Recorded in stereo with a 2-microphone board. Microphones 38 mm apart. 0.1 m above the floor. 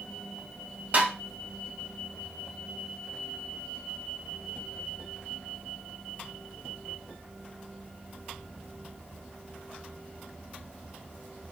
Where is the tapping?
45° right (ahead or behind), 1.7 m.